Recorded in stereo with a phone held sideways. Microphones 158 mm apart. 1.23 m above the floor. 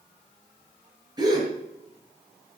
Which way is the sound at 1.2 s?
25° right (ahead or behind).